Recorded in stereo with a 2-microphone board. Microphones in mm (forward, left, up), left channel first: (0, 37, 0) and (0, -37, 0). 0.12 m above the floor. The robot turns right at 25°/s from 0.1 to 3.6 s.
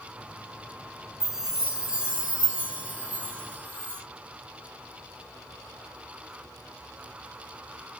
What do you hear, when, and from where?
1.2 s a chime: 5° right (ahead or behind), 0.5 m; by 4.0 s 25° right (ahead or behind), 0.5 m